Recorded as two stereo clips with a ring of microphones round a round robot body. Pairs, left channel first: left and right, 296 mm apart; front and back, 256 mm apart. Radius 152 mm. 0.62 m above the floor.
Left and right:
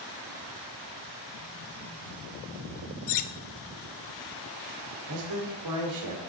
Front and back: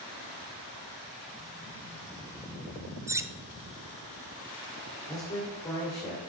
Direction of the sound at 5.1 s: 75° right.